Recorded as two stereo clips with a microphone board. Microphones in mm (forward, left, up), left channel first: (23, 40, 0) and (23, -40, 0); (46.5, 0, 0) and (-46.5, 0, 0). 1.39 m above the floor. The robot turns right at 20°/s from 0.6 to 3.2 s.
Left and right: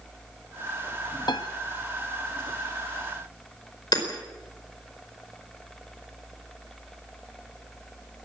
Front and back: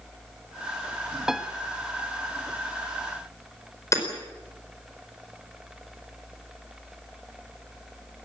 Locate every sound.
1.3 s a piano: 95° left, 1.2 m; by 1.5 s 100° left, 1.2 m
3.9 s hammering: 55° left, 4.5 m